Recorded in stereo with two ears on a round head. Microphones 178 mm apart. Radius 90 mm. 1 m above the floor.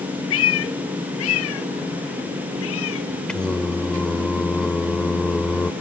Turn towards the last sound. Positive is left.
turn(degrees=5)  # may be behind; listen again after turning